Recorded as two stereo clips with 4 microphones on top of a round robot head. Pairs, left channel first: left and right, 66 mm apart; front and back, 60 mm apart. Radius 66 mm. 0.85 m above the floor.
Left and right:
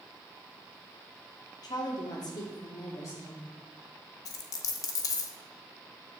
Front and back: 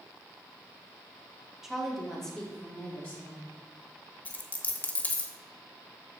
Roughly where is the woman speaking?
Left.